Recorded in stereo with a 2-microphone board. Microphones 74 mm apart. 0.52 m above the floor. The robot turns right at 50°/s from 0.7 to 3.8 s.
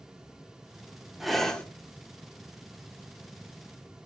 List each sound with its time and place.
1.2 s breathing: centre (ahead or behind), 0.6 m; by 1.6 s 15° left (ahead or behind), 0.6 m